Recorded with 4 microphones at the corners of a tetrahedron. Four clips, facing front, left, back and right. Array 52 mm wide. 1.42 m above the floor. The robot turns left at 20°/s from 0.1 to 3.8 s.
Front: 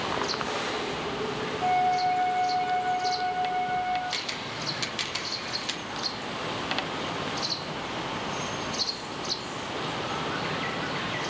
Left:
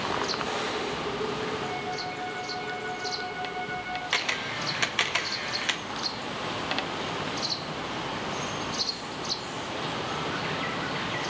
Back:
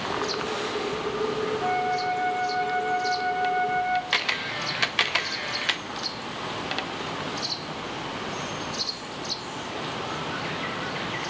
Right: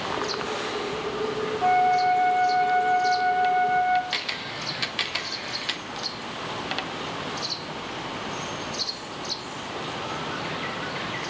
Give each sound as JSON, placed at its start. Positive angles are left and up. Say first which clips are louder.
{"t": 1.6, "sound": "a flute", "louder": "right 12 dB, front 5 dB", "azimuth_deg": -85, "distance_m": 2.0}
{"t": 4.1, "sound": "a camera shutter", "louder": "left 2 dB, back 7 dB", "azimuth_deg": 155, "distance_m": 0.6}